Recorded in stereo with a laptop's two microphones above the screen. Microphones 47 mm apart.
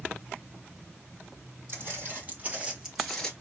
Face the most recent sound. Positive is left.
turn(degrees=15)  # may be behind; listen again after turning